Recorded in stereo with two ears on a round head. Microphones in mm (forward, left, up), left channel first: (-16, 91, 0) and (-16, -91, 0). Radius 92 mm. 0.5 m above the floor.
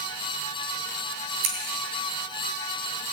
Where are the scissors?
75° right (ahead or behind), 3 m.